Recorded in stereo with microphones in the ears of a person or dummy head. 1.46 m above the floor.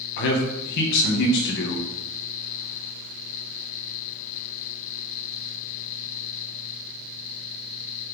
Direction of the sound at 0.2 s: 65° left (ahead or behind).